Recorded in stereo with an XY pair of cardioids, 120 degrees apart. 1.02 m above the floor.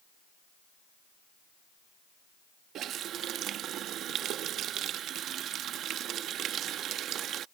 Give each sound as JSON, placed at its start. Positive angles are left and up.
{"t": 2.8, "sound": "a running tap", "azimuth_deg": -65}